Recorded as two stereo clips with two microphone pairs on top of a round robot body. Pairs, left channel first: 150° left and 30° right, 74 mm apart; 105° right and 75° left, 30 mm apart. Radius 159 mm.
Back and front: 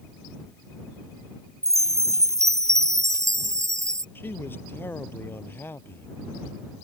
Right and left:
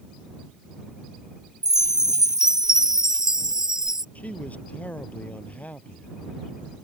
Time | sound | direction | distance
1.6 | a chime | straight ahead | ?
4.2 | a man speaking | 145° right | ?